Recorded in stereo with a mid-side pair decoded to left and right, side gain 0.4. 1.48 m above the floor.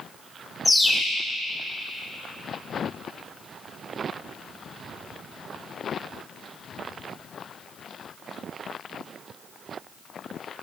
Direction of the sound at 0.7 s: 25° left.